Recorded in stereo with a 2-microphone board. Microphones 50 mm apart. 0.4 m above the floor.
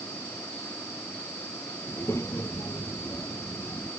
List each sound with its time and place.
1.9 s a child speaking: 70° left (ahead or behind)